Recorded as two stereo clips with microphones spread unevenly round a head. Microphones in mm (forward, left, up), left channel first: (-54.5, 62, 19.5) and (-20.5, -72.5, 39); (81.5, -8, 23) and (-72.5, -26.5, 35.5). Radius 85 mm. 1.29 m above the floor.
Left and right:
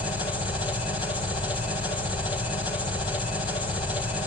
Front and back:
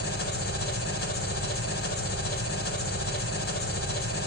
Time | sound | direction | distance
0.0 | an engine running | 40° left | 4 m